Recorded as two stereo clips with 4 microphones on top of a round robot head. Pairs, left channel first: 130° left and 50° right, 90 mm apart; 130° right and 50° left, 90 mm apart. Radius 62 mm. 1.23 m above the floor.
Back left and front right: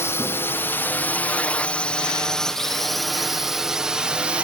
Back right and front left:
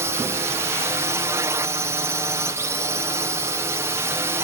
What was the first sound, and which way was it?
A drone, 85° left.